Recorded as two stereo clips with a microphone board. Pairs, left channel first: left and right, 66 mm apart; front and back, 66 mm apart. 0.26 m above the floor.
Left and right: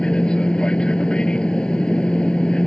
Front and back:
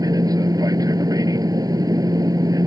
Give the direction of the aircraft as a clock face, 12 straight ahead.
7 o'clock.